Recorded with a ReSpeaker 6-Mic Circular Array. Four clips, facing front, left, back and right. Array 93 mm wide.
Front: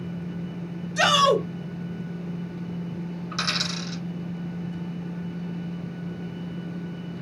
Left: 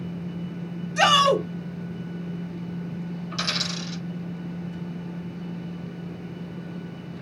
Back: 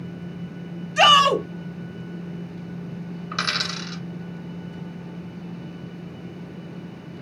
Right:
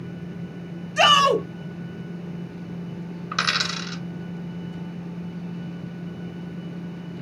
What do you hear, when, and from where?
1.0 s a shout: 155° right, 2 m
3.3 s a dropped coin: 115° right, 1.5 m